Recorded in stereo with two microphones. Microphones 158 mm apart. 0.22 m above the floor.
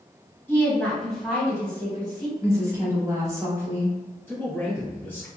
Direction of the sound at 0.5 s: 15° left (ahead or behind).